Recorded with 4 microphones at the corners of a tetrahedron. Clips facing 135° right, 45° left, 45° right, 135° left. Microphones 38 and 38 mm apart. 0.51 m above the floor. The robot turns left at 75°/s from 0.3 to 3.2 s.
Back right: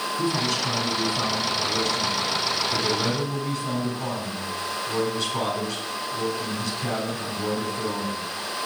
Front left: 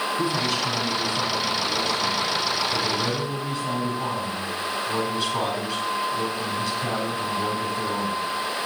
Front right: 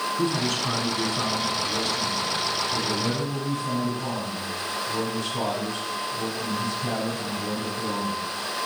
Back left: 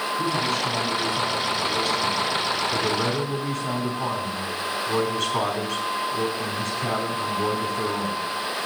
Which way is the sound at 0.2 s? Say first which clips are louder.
Back right 2 dB, back left 2 dB; 25° right.